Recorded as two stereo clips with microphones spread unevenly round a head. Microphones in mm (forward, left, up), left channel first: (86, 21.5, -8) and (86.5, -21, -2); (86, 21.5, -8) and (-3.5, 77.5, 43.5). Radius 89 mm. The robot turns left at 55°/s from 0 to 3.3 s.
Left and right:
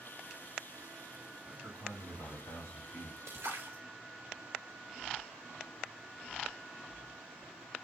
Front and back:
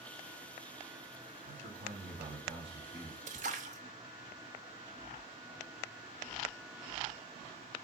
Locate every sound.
1.4 s a man speaking: 170° left, 2.5 m; by 3.2 s 75° left, 2.5 m
3.3 s a splash: 160° right, 0.7 m